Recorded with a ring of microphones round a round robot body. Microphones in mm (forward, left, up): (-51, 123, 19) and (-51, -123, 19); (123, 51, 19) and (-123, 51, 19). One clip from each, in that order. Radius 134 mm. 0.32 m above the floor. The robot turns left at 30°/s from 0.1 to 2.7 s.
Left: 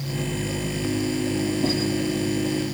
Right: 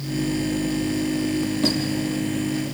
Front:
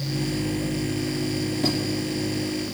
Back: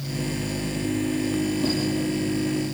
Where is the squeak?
65° right, 5 m; by 1.8 s 70° right, 5 m.